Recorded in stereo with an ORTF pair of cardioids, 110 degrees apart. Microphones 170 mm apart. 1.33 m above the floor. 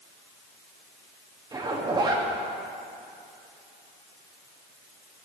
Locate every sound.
1.5 s a zipper: 25° right, 2.5 m